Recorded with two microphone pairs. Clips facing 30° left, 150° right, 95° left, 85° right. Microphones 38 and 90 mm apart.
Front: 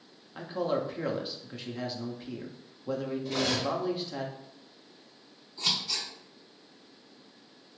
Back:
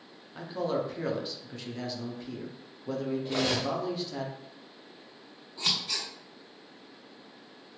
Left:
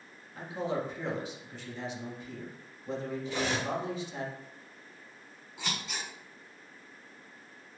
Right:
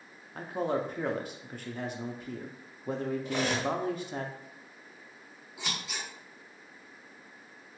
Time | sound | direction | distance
0.3 | a man speaking | 55° right | 0.6 m
3.2 | cutlery clinking | 110° right | 1.6 m
5.6 | scissors | 165° right | 1.8 m